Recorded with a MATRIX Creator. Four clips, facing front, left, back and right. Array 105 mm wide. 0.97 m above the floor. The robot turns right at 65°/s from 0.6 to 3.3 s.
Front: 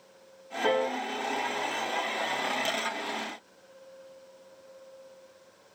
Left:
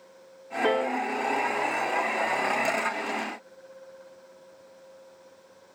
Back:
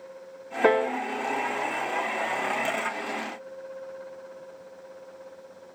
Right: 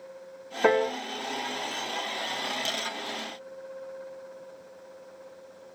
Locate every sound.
0.6 s a piano: 150° right, 0.6 m; by 1.0 s 130° right, 0.6 m